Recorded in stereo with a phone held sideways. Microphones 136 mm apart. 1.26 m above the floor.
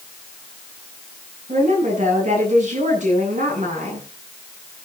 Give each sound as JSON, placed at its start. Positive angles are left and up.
{"t": 1.5, "sound": "a woman speaking", "side_deg": -65, "distance_m": 10.0}